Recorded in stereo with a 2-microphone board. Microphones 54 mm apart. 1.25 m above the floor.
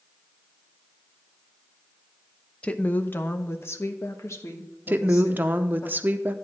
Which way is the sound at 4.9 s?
35° right (ahead or behind).